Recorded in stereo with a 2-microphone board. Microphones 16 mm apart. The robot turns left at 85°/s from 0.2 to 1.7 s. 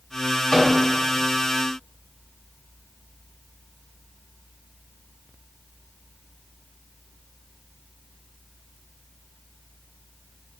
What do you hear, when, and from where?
0.5 s a microwave: 35° left (ahead or behind), 1.1 m